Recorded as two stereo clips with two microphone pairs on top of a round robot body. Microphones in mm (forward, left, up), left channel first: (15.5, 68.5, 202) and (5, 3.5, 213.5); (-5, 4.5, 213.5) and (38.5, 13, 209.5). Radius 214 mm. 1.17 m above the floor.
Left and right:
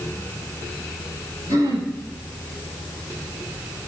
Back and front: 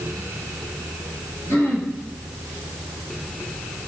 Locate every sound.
1.5 s throat clearing: 130° right, 6.5 m